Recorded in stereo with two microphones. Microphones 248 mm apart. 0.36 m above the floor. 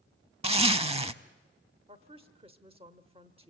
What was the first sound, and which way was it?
A zipper, 25° right (ahead or behind).